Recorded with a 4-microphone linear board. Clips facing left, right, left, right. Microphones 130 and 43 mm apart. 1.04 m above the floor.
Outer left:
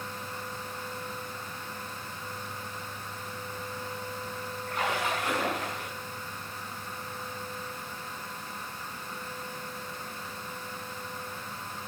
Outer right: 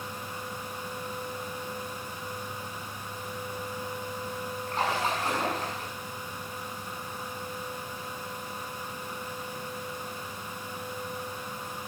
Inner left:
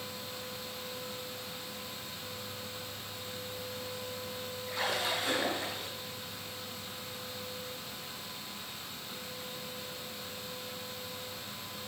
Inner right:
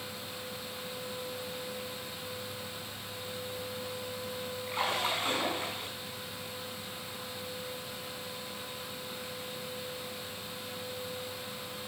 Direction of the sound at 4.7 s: 40° right (ahead or behind).